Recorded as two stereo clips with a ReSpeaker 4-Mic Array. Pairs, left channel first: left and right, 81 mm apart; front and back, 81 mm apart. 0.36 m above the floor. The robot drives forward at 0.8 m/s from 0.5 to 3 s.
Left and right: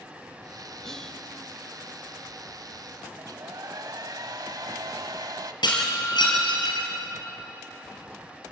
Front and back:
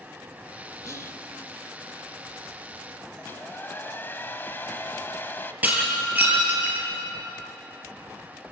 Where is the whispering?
10° left, 1.3 m; by 1.1 s 15° left, 1.1 m.